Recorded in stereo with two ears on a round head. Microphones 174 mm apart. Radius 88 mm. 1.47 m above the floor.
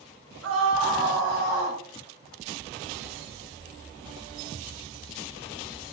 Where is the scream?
80° right, 1.9 m; by 1.8 s 55° right (ahead or behind), 1.9 m.